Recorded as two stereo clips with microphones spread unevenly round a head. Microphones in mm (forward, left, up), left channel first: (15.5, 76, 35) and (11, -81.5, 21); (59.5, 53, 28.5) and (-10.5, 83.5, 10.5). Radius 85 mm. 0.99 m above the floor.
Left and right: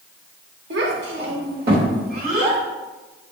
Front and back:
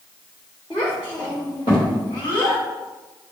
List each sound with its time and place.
0.7 s a child speaking: 85° right, 2.5 m; by 2.6 s 55° right, 4 m